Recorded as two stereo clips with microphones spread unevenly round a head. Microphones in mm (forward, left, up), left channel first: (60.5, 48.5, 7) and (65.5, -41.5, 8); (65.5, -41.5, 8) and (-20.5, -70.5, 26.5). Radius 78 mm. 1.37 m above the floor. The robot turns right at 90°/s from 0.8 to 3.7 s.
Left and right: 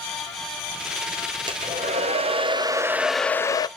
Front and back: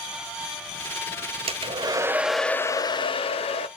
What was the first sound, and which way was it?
A hair dryer, 150° right.